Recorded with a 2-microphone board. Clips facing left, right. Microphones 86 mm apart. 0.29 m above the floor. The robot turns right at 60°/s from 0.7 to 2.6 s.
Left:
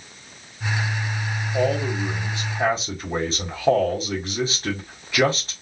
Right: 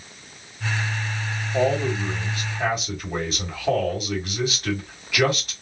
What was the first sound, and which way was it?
A man speaking, 25° right.